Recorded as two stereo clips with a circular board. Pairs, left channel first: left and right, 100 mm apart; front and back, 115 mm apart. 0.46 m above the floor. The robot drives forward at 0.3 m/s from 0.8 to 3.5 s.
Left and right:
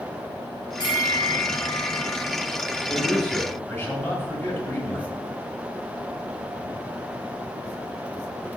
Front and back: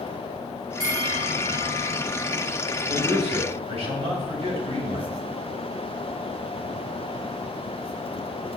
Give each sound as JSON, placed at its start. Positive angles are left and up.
{"t": 0.8, "sound": "a bell", "azimuth_deg": 125, "distance_m": 2.5}
{"t": 2.9, "sound": "a man speaking", "azimuth_deg": 155, "distance_m": 3.0}